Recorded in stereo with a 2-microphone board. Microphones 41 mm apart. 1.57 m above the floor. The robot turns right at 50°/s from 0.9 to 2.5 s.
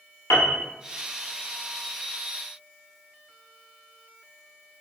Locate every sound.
0.3 s a piano: 80° left, 0.7 m